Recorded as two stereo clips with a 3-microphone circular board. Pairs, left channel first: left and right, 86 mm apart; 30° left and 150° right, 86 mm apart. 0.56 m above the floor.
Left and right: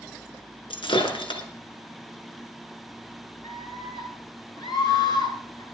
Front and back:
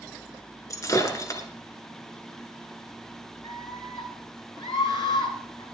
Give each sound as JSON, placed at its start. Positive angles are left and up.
{"t": 0.7, "sound": "breaking glass", "azimuth_deg": 80, "distance_m": 2.5}
{"t": 3.4, "sound": "a scream", "azimuth_deg": 55, "distance_m": 8.5}